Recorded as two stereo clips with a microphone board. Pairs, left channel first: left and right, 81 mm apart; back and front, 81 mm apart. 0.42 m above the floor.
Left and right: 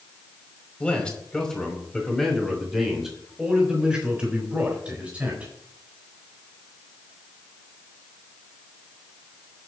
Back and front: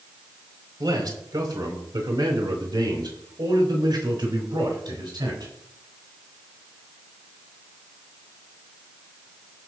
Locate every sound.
0.8 s a man speaking: 20° left, 2.5 m; by 5.5 s 20° right, 4 m